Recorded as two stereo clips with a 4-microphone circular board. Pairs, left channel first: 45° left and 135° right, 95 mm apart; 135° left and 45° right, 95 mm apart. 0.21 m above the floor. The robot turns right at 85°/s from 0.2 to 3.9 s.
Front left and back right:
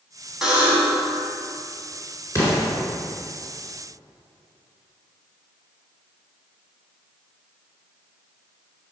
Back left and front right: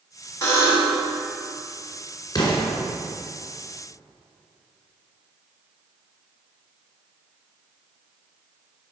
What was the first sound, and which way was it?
A buzzer, 145° left.